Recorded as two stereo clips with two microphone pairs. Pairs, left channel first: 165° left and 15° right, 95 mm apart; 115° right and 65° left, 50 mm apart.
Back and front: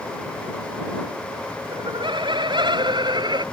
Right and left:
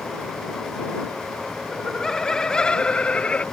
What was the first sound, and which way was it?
Laughter, 30° right.